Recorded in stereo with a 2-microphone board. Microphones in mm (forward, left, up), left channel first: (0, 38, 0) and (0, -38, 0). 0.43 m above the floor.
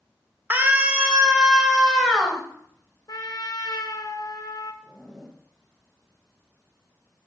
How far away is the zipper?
About 1.6 m.